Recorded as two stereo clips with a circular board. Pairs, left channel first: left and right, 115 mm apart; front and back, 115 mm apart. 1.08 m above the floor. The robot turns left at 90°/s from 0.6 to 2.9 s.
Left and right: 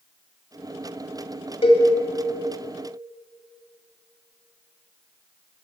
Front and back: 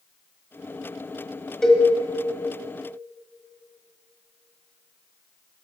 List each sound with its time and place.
1.6 s a cowbell: 85° left, 1.6 m; by 1.9 s 65° left, 1.6 m